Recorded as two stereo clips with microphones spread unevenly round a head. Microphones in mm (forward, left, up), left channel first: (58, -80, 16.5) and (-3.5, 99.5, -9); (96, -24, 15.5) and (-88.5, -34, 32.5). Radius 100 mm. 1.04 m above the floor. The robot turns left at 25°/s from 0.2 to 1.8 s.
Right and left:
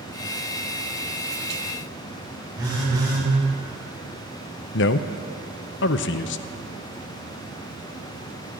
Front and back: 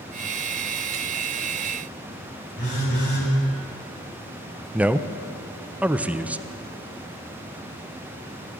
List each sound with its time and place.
2.6 s a phone buzzing: 40° left, 4.5 m
4.7 s a man speaking: 90° right, 0.5 m